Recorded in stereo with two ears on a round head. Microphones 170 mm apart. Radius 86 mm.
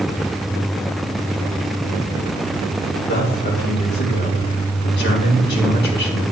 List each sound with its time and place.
3.1 s a man speaking: 70° left (ahead or behind), 4 m